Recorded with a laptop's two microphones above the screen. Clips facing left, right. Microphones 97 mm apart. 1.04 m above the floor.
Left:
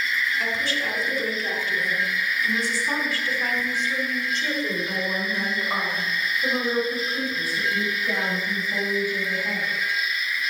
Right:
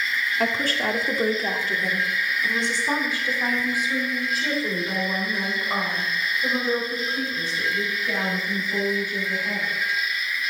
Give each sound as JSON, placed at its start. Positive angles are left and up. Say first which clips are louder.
{"t": 0.4, "sound": "a woman speaking", "louder": "right 3 dB", "side_deg": -55, "distance_m": 2.0}